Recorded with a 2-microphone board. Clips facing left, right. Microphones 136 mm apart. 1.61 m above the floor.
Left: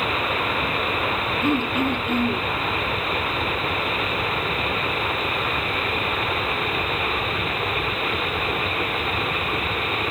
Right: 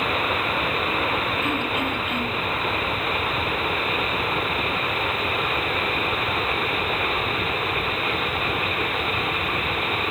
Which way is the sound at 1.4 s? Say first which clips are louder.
Left 4 dB; 30° left (ahead or behind).